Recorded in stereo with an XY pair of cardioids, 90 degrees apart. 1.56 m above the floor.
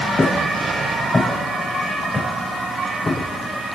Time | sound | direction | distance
0.2 | footsteps | 25° left | 6.5 m